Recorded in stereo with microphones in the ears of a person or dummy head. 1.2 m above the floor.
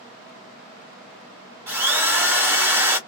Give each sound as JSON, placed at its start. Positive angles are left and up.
{"t": 1.7, "sound": "a drill", "side_deg": -15, "distance_m": 1.2}